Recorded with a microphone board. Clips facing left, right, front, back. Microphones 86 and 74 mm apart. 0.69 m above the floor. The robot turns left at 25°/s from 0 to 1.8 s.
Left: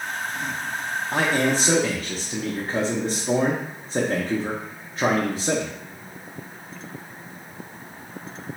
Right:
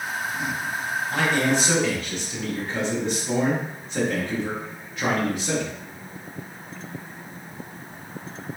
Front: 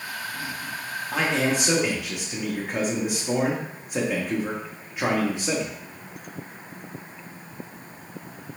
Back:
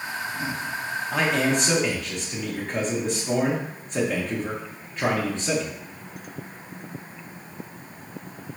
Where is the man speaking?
90° left, 0.7 m; by 5.7 s 75° left, 0.7 m.